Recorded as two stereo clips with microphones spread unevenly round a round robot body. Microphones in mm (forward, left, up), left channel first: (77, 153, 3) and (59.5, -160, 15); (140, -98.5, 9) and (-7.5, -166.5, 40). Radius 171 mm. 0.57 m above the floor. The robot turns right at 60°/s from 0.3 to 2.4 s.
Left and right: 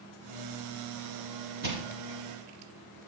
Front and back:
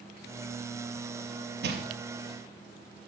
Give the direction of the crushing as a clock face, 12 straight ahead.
5 o'clock.